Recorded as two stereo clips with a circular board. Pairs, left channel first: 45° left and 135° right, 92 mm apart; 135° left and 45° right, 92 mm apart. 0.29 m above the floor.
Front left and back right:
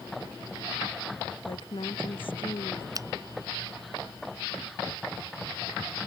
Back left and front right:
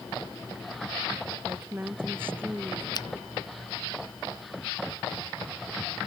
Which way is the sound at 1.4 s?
25° left.